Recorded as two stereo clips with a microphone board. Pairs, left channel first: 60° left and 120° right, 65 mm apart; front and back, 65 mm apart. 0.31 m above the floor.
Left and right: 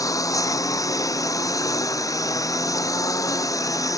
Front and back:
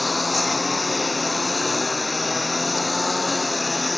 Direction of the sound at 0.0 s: 90° left.